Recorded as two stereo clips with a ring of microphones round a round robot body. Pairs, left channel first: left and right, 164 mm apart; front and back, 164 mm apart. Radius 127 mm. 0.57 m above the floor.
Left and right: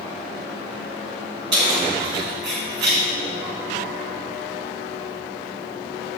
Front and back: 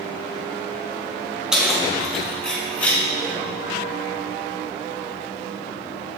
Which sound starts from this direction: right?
Keys jangling, at 1.5 s.